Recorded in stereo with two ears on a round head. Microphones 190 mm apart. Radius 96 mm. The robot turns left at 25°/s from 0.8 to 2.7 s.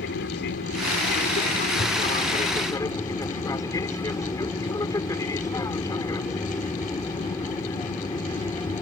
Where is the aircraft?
65° left; by 8.8 s 15° left.